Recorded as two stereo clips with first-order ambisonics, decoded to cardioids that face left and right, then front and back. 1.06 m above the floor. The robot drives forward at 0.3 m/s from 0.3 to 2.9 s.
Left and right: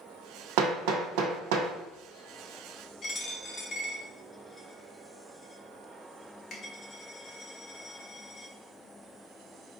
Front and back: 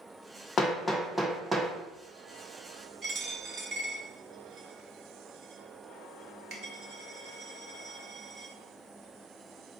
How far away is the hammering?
About 0.6 m.